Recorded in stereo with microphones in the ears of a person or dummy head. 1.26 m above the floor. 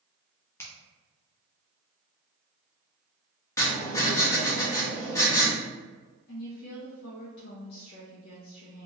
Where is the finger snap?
15° left (ahead or behind), 0.8 m.